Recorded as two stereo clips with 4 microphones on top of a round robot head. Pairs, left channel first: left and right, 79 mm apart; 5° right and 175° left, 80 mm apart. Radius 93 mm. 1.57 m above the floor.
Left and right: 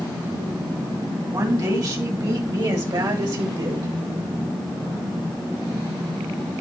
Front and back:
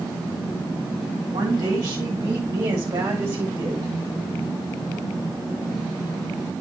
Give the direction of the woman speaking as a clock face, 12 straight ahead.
4 o'clock.